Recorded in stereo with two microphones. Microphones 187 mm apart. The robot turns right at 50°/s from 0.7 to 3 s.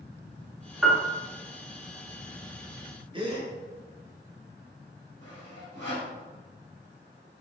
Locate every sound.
0.8 s a piano: 5° right (ahead or behind), 0.8 m; by 1.0 s 10° right (ahead or behind), 0.8 m
3.1 s a gasp: 30° right (ahead or behind), 0.7 m
5.2 s sawing: 75° left (ahead or behind), 1.7 m